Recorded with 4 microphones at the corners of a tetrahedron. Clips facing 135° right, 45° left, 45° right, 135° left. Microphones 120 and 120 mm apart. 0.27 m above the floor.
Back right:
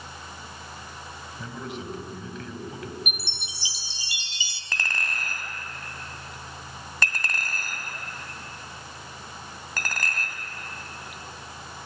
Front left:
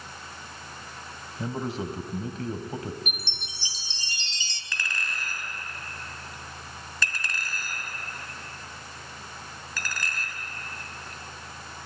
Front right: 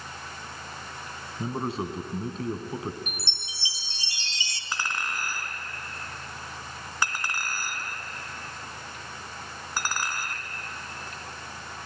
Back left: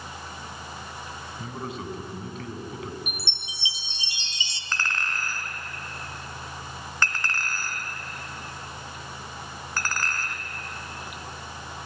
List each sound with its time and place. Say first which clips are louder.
1.4 s a man speaking: front left 6 dB, front right 6 dB; straight ahead, 1.7 m
3.1 s a chime: back right 1 dB, back left 1 dB; 160° left, 0.9 m
4.7 s a clink: back right 2 dB, back left 1 dB; 120° right, 1.7 m